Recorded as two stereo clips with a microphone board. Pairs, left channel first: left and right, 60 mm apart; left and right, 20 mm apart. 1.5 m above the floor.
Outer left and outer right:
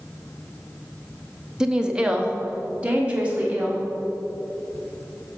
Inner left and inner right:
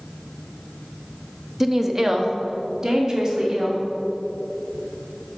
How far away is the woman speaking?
About 0.6 m.